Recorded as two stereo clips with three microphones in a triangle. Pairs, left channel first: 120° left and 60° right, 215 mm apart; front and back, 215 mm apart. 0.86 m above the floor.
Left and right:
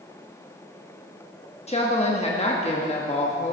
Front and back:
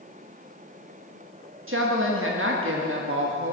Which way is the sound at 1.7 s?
175° left.